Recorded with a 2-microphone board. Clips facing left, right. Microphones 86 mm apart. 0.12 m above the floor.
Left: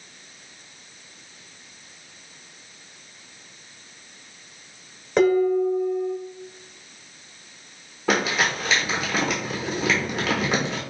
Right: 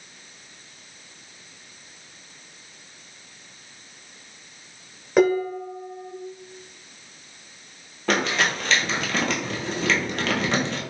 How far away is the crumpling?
About 0.8 m.